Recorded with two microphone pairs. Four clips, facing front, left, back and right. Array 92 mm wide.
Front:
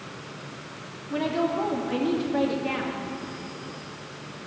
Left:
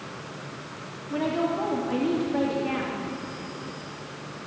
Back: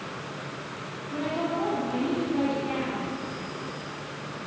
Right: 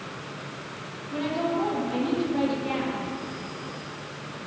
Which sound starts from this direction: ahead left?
A woman speaking, at 1.1 s.